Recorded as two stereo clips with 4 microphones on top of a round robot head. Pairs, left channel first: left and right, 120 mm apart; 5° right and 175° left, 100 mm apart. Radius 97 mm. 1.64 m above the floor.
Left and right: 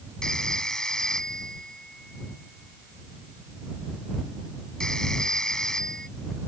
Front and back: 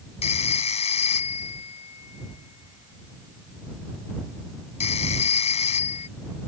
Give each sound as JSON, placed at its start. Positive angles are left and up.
{"t": 0.2, "sound": "a phone ringing", "azimuth_deg": 5}